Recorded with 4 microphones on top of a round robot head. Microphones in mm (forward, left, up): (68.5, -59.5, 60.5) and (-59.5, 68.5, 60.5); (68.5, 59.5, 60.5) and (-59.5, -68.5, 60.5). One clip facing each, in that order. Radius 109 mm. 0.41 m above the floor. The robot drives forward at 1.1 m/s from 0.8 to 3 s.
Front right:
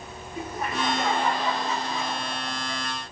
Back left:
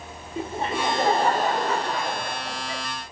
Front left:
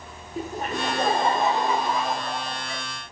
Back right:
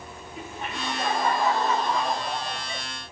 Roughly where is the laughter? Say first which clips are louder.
Back left 3 dB, front left 7 dB; left.